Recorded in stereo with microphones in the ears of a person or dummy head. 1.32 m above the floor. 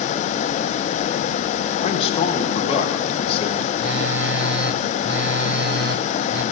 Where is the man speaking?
35° left (ahead or behind), 1.5 m.